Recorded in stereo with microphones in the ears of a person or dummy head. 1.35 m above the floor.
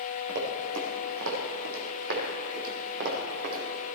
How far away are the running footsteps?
About 4 m.